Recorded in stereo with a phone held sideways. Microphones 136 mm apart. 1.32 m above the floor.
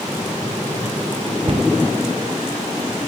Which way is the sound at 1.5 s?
50° right (ahead or behind).